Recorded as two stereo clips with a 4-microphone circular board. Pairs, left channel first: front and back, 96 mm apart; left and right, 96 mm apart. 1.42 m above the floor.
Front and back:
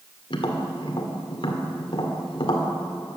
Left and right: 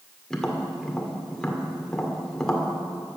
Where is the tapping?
5° left, 1.9 m.